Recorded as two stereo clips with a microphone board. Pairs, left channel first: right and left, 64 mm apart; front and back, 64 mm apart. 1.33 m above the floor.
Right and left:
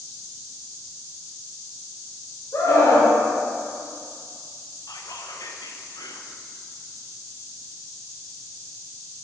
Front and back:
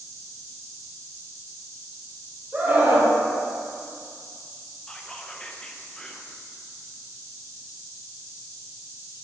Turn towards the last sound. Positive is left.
turn(degrees=-75)